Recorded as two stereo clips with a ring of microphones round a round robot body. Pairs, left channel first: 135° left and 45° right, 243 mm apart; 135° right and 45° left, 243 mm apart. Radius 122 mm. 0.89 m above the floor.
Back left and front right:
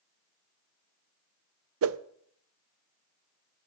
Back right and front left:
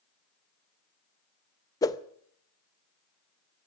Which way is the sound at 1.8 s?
60° right.